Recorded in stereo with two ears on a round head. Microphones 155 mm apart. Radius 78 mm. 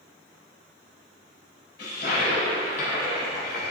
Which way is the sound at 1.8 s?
60° left (ahead or behind).